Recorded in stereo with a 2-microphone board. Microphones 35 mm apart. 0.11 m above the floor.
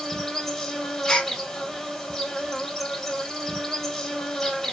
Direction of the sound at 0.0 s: 10° left (ahead or behind).